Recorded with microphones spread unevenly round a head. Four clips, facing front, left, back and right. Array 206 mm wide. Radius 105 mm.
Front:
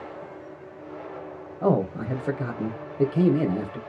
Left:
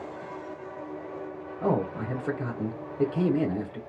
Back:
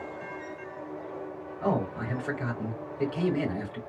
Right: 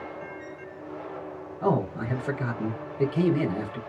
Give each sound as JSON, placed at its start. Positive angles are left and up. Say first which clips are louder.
{"t": 1.6, "sound": "a man speaking", "louder": "right 1 dB, front 5 dB", "azimuth_deg": 15, "distance_m": 1.3}